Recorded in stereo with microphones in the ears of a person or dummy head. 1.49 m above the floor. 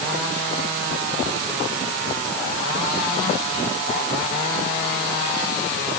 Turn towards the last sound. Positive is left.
No sound to turn to.